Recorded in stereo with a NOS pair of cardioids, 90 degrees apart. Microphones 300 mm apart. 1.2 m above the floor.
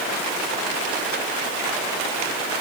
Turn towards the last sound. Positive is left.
No sound to turn to.